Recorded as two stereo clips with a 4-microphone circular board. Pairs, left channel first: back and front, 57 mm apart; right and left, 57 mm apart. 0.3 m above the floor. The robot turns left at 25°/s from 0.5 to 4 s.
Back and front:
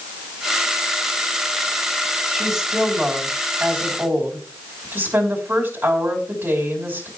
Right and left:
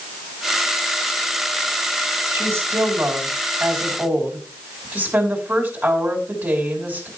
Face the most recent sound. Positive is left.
turn(degrees=45)